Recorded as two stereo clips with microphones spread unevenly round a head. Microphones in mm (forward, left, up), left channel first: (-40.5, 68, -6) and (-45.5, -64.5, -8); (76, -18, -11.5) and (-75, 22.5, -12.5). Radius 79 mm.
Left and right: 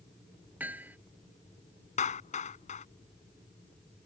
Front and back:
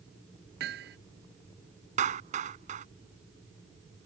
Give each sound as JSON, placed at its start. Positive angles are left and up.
{"t": 0.6, "sound": "hammering", "azimuth_deg": -170}
{"t": 2.0, "sound": "a clap", "azimuth_deg": 120}